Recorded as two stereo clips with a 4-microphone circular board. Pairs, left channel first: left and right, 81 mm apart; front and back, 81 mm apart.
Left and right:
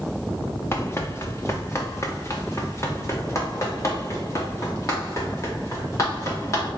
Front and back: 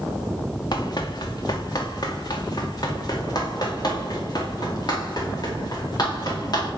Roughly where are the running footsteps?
Ahead left.